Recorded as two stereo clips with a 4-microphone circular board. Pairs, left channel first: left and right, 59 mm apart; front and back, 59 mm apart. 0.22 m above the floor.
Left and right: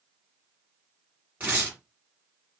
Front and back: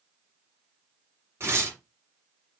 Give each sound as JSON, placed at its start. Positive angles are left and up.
{"t": 1.4, "sound": "tearing paper", "azimuth_deg": -145, "distance_m": 1.9}